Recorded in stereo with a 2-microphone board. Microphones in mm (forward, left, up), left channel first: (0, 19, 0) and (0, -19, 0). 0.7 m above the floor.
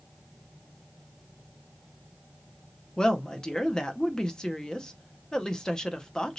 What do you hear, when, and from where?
3.0 s a woman speaking: 20° left (ahead or behind), 0.6 m